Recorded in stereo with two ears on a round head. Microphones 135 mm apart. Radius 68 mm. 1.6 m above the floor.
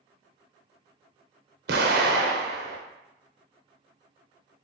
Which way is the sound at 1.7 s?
70° right (ahead or behind).